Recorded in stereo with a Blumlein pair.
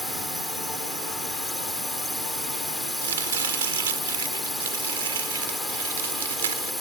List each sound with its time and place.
0.0 s a drone: 5° left
3.0 s chopping: 65° right